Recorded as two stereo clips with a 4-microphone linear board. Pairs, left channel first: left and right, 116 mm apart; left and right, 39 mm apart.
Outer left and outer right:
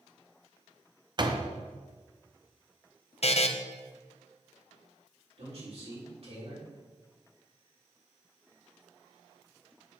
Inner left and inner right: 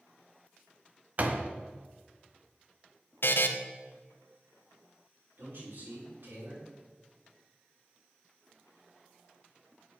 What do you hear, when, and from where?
1.2 s a door slam: 40° right (ahead or behind), 0.7 m
3.2 s a buzzer: 60° left (ahead or behind), 0.6 m
5.4 s a man speaking: 60° right (ahead or behind), 4 m